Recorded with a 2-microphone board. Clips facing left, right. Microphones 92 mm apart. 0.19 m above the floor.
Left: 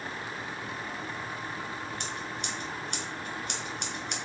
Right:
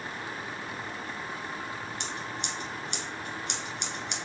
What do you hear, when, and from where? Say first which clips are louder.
2.0 s scissors: even; 45° left (ahead or behind), 1.3 m